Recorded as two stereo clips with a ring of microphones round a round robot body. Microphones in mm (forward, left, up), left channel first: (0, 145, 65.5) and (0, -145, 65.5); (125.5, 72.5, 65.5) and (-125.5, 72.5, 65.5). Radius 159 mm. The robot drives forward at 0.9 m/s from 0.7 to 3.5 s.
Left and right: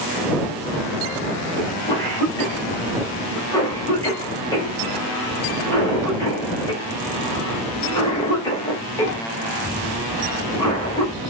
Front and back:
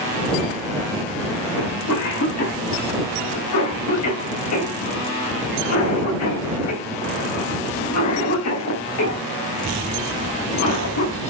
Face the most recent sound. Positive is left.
turn(degrees=15)